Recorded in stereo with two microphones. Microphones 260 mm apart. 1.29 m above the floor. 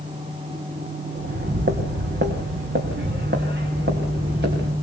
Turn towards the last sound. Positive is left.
turn(degrees=-40)  # may be behind; listen again after turning